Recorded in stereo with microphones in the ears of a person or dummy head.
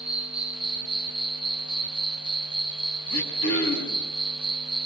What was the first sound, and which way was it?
An insect, 5° right (ahead or behind).